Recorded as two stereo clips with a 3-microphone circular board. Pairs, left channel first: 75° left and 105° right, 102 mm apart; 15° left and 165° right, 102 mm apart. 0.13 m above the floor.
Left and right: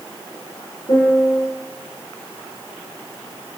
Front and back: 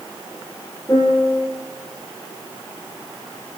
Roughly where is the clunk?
I don't hear a clunk.